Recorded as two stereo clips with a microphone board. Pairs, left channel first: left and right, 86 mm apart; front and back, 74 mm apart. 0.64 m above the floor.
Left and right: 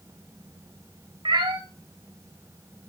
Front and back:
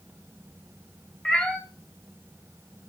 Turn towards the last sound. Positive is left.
turn(degrees=-80)